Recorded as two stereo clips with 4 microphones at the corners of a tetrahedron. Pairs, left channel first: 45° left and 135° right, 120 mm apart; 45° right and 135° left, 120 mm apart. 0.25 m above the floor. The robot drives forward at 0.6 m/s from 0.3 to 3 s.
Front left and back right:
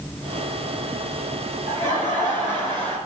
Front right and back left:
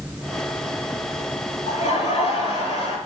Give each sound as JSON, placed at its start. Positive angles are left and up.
{"t": 1.7, "sound": "laughter", "azimuth_deg": -80, "distance_m": 5.0}